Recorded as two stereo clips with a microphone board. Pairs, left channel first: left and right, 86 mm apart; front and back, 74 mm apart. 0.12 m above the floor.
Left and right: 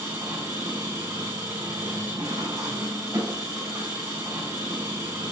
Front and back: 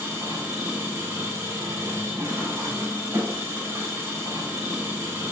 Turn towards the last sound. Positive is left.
turn(degrees=-130)